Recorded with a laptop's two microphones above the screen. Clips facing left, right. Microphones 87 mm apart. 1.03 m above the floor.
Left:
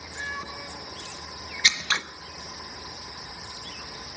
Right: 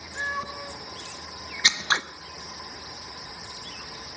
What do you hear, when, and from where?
0.1 s a cat meowing: 45° right (ahead or behind), 1.9 m
1.6 s scissors: 30° right (ahead or behind), 0.7 m